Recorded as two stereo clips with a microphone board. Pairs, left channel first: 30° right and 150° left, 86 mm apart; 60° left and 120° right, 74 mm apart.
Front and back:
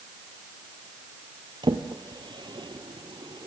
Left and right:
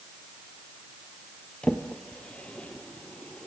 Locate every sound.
1.6 s a drawer: 135° left, 1.9 m